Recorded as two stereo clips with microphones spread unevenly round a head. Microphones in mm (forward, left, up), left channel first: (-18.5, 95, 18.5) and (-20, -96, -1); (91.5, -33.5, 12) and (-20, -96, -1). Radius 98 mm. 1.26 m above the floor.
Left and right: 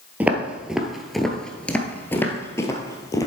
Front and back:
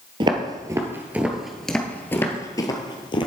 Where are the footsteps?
175° right, 1.4 m; by 3.3 s 30° left, 1.6 m.